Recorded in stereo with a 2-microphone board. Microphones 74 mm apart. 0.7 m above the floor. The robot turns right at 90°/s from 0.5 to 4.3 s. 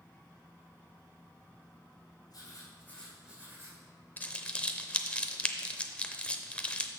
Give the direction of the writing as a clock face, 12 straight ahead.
9 o'clock.